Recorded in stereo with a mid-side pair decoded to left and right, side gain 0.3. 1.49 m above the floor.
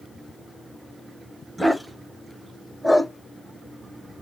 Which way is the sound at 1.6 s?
10° right.